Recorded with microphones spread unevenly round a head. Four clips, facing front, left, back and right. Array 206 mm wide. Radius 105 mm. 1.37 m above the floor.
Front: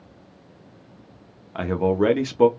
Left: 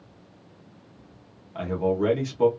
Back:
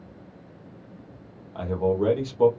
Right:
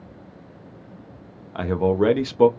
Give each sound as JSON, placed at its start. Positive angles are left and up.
{"t": 1.6, "sound": "a man speaking", "azimuth_deg": -45, "distance_m": 0.6}